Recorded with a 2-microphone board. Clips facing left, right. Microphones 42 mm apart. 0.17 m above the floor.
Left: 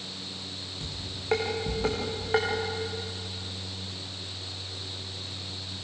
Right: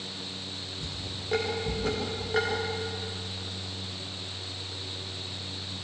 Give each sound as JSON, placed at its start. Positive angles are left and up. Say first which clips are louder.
{"t": 0.8, "sound": "dishes clattering", "louder": "right 1 dB", "side_deg": 75, "distance_m": 9.0}